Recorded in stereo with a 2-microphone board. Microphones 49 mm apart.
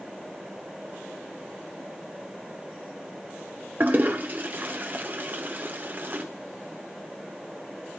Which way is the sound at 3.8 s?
40° right (ahead or behind).